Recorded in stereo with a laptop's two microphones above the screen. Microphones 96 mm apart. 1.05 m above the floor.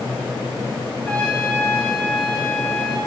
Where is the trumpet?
10° left (ahead or behind), 7.5 m.